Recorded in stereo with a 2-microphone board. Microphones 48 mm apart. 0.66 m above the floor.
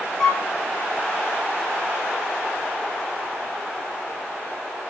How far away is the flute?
About 3 m.